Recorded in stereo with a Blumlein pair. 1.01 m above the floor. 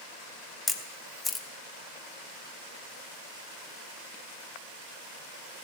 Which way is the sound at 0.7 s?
10° left.